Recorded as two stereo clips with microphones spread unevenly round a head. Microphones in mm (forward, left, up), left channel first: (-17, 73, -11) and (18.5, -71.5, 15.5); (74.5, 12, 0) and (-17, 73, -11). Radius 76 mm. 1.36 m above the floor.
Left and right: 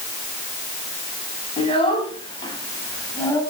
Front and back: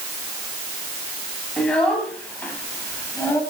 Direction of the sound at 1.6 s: 50° left.